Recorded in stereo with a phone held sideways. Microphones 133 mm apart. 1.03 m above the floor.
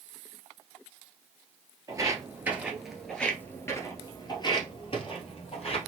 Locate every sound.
1.9 s footsteps: 25° right (ahead or behind), 1.2 m; by 5.9 s 55° left (ahead or behind), 1.8 m